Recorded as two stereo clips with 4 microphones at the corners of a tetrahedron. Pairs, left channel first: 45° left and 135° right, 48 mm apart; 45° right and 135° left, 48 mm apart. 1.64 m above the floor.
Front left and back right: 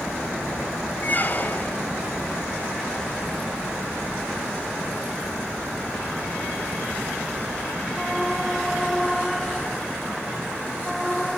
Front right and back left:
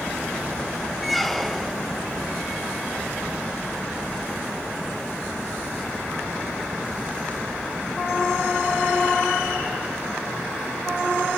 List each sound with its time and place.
1.0 s a squeak: 45° left, 0.7 m